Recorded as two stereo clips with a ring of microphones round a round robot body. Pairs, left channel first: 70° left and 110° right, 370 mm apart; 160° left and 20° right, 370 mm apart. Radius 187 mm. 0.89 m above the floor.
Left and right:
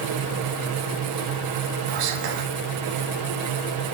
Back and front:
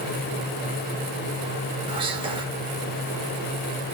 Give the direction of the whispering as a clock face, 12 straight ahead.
3 o'clock.